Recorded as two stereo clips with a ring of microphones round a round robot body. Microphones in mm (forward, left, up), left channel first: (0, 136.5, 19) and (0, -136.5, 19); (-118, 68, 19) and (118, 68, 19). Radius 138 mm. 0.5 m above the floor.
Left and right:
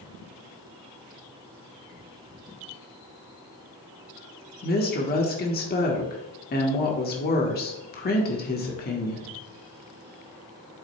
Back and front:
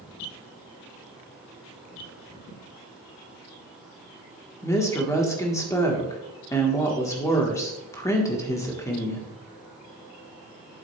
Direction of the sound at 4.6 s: 110° left.